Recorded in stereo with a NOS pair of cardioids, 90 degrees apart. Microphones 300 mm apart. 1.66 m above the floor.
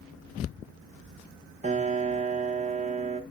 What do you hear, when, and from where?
1.6 s a piano: 25° right, 1.2 m